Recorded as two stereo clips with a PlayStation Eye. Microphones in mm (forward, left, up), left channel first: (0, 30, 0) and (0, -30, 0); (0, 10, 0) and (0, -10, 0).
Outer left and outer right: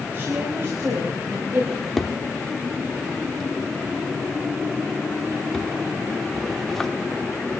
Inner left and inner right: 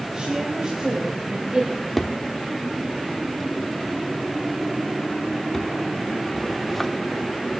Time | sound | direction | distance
0.1 | a woman speaking | 40° right (ahead or behind) | 3.5 m
1.7 | a drawer | 5° left (ahead or behind) | 1.0 m